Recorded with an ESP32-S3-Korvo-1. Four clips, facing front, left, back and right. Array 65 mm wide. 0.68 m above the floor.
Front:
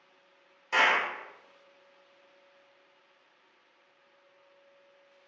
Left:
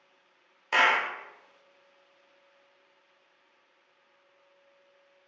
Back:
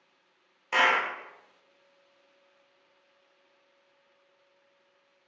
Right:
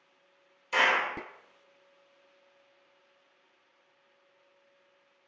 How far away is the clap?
About 1.0 m.